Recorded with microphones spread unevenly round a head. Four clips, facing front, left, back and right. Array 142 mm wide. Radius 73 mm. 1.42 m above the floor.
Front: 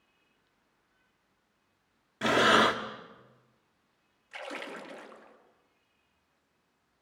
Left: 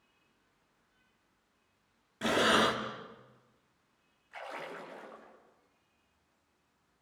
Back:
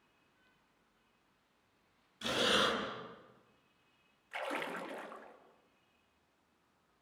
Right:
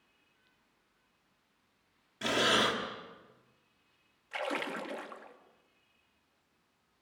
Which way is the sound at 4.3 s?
85° right.